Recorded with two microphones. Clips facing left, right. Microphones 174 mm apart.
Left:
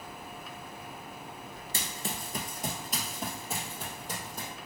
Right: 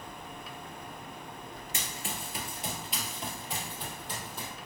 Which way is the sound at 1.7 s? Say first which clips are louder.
Left 2 dB; 35° left (ahead or behind).